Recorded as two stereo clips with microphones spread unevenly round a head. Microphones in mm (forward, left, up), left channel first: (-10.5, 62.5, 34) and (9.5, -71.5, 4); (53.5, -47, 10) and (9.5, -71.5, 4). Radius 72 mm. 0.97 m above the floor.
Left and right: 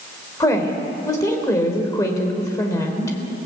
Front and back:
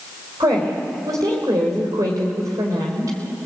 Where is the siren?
I don't hear a siren.